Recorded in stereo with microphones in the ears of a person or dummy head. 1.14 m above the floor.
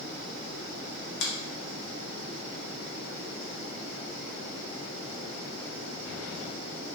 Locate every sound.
1.2 s a finger snap: 65° left (ahead or behind), 0.9 m